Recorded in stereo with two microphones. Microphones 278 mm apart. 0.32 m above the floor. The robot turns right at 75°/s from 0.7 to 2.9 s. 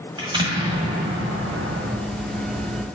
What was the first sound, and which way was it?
An explosion, 160° right.